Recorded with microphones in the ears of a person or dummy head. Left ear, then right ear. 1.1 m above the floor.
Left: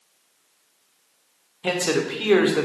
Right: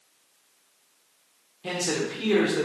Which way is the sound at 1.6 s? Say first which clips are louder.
Left 5 dB; 40° left (ahead or behind).